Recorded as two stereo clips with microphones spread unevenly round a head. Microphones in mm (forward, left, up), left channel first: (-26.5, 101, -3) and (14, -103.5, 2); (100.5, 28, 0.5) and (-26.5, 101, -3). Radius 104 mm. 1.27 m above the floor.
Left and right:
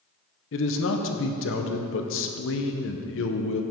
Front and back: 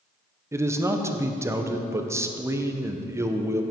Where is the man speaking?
80° left, 0.8 m.